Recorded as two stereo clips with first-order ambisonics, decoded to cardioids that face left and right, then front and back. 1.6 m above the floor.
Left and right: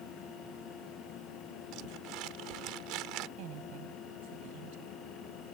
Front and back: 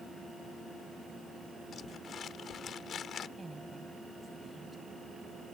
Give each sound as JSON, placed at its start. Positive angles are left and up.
{"t": 1.7, "sound": "crumpling", "azimuth_deg": -60}
{"t": 3.4, "sound": "a woman speaking", "azimuth_deg": -100}